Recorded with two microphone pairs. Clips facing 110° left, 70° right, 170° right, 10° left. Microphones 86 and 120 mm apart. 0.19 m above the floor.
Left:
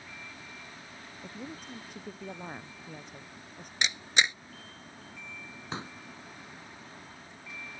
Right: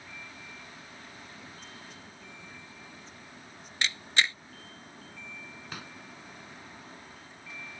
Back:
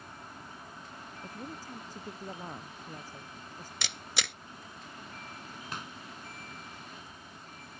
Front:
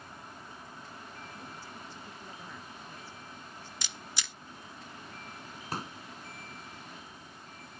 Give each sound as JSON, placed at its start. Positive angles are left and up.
{"t": 1.2, "sound": "a woman speaking", "azimuth_deg": 145}
{"t": 3.8, "sound": "a camera shutter", "azimuth_deg": 180}
{"t": 5.7, "sound": "a pop", "azimuth_deg": 55}